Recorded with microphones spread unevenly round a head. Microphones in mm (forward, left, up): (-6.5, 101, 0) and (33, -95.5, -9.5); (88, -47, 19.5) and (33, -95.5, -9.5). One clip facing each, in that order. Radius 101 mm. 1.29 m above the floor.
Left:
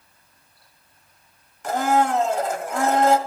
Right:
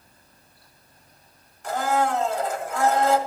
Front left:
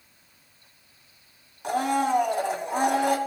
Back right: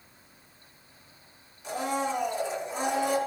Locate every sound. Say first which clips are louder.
1.6 s a blender: left 3 dB, front left 6 dB; 80° left, 1.4 m